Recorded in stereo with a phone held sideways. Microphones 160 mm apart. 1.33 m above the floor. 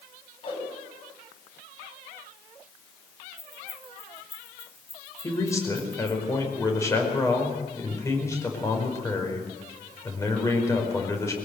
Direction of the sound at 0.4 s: 35° left (ahead or behind).